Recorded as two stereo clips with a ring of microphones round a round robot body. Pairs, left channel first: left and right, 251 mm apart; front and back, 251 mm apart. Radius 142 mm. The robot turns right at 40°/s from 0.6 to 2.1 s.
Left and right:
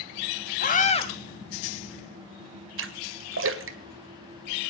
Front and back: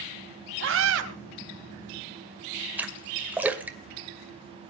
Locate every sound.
0.6 s a scream: 140° left, 3.5 m; by 1.1 s 160° left, 3.5 m
2.8 s a splash: 100° right, 1.9 m